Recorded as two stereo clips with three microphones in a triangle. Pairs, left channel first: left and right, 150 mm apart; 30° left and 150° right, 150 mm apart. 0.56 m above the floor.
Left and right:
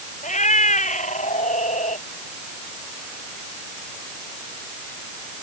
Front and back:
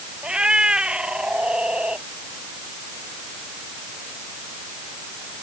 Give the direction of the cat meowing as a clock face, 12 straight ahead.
8 o'clock.